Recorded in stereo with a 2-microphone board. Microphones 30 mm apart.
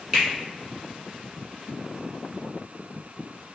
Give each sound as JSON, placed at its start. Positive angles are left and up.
{"t": 0.1, "sound": "a finger snap", "side_deg": -10, "distance_m": 1.5}